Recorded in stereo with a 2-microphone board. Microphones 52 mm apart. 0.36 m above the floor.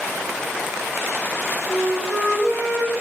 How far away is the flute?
About 1.2 m.